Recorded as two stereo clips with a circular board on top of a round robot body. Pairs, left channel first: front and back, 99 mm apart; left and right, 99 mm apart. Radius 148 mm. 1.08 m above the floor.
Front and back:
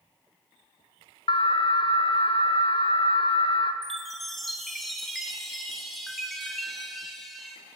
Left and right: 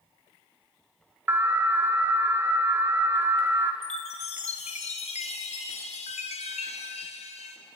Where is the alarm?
25° right, 1.8 m.